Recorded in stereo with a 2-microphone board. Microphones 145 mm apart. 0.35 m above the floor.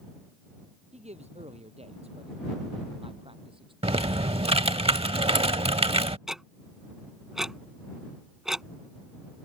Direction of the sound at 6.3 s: 5° right (ahead or behind).